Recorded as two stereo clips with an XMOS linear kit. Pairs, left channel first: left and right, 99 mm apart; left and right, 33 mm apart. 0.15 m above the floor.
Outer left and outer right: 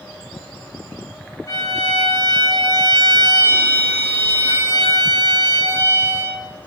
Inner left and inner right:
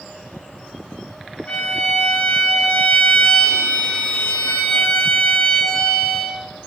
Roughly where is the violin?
Left.